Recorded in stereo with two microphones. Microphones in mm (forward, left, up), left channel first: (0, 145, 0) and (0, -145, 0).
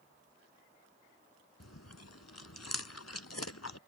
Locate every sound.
1.6 s chewing: 65° left (ahead or behind)